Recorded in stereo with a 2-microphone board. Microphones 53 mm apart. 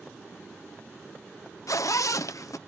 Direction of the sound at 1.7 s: 85° left.